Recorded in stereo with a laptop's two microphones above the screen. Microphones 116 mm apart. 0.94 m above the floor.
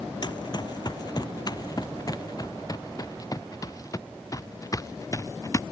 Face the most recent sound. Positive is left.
turn(degrees=30)  # may be behind; listen again after turning